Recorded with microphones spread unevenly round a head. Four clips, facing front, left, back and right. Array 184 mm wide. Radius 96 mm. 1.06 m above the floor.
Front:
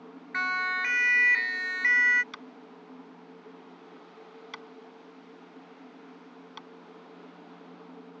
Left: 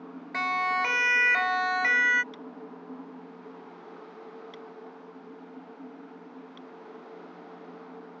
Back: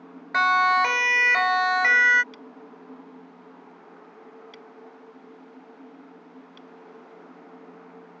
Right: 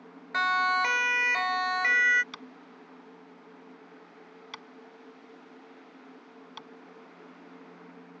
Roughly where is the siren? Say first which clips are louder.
Right 2 dB, back 11 dB; behind.